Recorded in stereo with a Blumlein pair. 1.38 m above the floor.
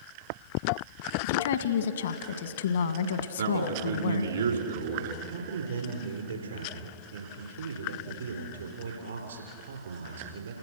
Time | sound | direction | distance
1.2 | a woman speaking | 60° left | 1.7 m
3.4 | a man speaking | 65° right | 3.5 m
5.2 | a man speaking | 65° right | 4.5 m